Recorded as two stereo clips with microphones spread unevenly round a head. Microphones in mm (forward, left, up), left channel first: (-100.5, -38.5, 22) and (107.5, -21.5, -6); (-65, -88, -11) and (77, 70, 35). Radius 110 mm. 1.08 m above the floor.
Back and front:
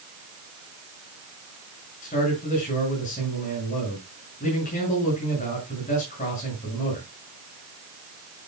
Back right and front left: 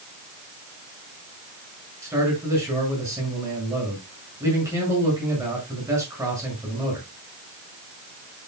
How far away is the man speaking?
About 6.5 m.